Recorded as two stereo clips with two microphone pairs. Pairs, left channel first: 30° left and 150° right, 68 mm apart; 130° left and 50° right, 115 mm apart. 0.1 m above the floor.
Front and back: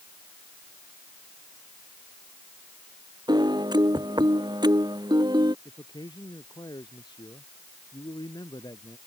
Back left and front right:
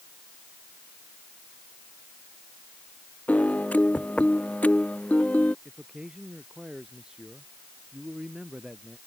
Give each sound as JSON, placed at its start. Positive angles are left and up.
{"t": 3.3, "sound": "a piano", "azimuth_deg": -155}
{"t": 5.7, "sound": "a man speaking", "azimuth_deg": 35}